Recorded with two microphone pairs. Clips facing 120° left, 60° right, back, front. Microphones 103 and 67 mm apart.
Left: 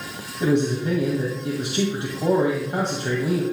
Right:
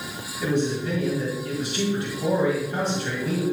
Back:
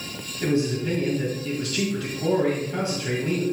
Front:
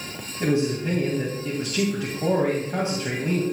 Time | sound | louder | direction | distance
0.4 | a man speaking | left 4 dB, front 1 dB | 65° left | 2 m